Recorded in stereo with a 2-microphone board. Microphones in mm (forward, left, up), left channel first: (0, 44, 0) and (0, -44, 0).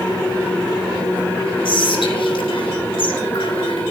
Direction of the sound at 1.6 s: 75° left (ahead or behind).